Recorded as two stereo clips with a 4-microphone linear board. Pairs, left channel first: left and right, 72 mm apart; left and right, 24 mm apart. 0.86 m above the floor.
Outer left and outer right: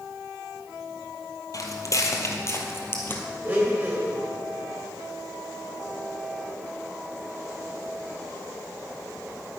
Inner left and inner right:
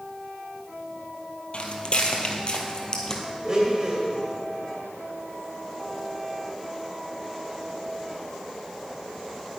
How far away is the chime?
I don't hear a chime.